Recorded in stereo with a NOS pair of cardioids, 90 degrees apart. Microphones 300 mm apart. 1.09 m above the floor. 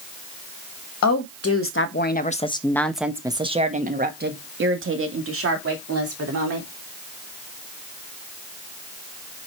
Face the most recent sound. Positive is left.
turn(degrees=-55)